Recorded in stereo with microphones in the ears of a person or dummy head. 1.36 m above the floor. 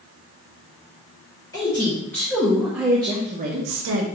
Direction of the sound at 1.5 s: 20° left (ahead or behind).